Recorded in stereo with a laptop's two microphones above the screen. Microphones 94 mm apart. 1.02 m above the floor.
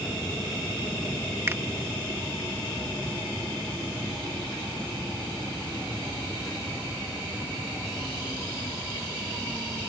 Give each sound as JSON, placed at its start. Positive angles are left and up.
{"t": 1.5, "sound": "a finger snap", "side_deg": -25}